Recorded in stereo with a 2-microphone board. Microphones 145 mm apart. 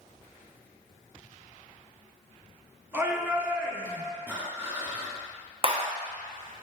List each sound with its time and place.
2.9 s a shout: 15° right (ahead or behind), 2 m
4.3 s breathing: 15° right (ahead or behind), 2.5 m
5.6 s a clap: 45° right (ahead or behind), 1.0 m